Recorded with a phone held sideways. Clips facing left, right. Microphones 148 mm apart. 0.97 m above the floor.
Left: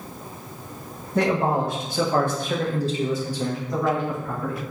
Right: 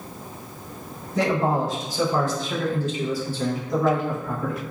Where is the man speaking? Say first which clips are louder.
Left 1 dB; 55° left (ahead or behind), 0.9 m; by 4.6 s 15° right (ahead or behind), 1.0 m.